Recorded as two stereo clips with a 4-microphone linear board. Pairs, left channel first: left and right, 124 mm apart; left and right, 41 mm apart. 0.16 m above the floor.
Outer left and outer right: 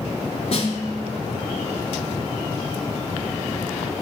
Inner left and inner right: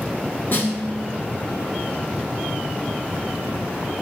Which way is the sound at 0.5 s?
55° left (ahead or behind).